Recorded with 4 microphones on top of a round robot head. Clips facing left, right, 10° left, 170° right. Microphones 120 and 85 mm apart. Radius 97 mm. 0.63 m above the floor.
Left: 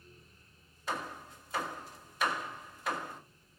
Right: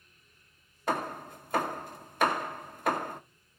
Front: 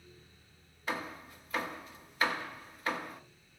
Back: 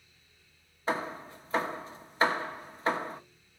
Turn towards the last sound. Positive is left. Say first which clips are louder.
# right 7 dB, back 6 dB
turn(degrees=-115)